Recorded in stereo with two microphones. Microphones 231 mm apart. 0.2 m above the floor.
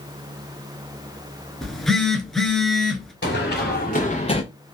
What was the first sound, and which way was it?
A phone buzzing, centre (ahead or behind).